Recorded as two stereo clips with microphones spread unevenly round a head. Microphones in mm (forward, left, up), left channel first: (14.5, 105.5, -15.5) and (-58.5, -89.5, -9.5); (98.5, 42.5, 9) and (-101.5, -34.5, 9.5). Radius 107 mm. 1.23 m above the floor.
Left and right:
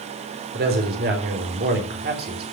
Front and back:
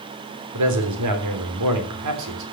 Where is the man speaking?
155° right, 3 m.